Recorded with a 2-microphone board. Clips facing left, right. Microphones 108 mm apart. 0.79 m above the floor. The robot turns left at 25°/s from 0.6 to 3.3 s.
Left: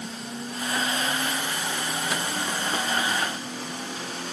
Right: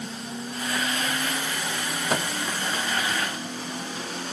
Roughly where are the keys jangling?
I don't hear keys jangling.